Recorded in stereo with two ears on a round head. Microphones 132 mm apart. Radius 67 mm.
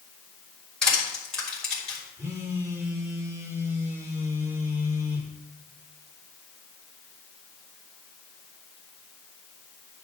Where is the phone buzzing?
15° right (ahead or behind), 1.2 m.